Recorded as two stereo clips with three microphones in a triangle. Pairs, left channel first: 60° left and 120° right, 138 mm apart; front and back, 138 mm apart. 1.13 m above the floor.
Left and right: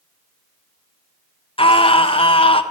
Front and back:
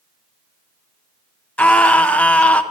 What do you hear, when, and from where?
1.6 s a scream: 75° left, 0.8 m